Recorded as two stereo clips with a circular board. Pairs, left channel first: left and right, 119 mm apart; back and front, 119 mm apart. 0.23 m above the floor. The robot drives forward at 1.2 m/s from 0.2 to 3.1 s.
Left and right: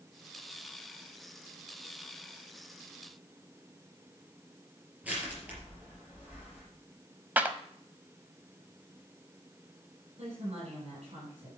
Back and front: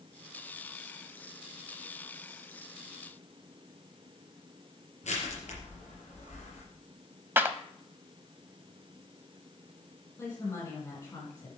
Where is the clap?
40° right, 0.7 m.